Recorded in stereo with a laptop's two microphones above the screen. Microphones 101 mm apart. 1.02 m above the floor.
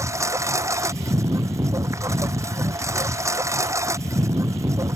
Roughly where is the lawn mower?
Right.